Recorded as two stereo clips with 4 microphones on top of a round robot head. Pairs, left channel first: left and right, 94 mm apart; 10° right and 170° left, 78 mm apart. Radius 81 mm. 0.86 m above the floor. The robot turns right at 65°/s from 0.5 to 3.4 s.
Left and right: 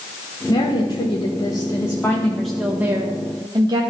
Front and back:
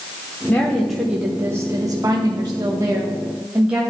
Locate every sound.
0.5 s a woman speaking: 55° left, 1.1 m; by 3.8 s 120° right, 1.1 m